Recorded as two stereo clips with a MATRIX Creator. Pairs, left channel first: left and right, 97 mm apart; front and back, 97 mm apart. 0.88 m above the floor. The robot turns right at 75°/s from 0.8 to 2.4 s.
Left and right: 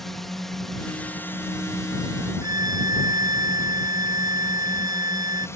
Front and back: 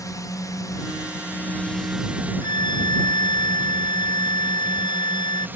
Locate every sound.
0.0 s a drone: 5° left; by 5.6 s 125° left
2.4 s a violin: 40° right